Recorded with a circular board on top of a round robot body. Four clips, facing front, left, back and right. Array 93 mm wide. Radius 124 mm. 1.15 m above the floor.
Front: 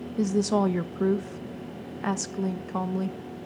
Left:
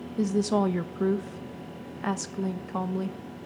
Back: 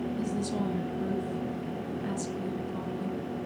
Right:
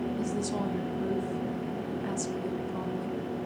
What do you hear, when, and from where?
0.2 s a woman speaking: 35° left, 1.0 m